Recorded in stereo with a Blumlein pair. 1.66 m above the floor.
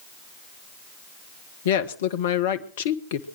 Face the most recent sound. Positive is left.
turn(degrees=55)